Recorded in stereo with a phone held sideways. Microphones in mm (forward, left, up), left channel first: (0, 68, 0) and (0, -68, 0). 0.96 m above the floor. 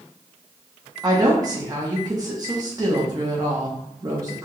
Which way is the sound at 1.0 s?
25° right (ahead or behind).